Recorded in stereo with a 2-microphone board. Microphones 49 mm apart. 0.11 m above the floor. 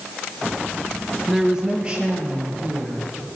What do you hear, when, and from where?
1.3 s a woman speaking: 5° right (ahead or behind), 1.1 m; by 3.1 s 30° right (ahead or behind), 3.5 m